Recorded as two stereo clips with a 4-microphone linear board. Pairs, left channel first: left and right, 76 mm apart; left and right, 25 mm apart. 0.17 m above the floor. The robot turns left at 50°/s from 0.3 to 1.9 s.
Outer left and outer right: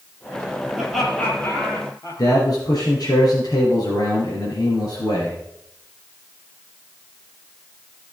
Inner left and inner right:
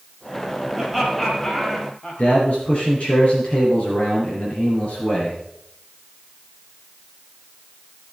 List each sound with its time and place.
0.7 s laughter: 10° right (ahead or behind), 4 m; by 2.4 s 45° left (ahead or behind), 4 m
2.2 s a man speaking: 55° left (ahead or behind), 3.5 m